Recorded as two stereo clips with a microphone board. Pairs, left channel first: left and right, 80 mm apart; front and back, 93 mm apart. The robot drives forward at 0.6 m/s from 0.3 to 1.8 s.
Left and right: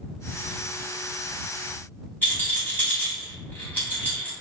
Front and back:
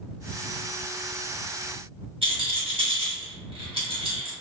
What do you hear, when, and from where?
2.2 s a rattle: 160° left, 1.5 m